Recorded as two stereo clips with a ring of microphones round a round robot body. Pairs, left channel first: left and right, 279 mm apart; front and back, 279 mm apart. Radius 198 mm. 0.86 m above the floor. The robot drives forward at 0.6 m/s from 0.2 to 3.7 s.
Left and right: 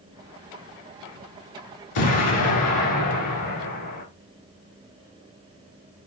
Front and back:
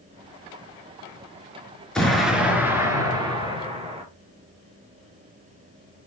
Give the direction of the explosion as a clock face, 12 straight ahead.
9 o'clock.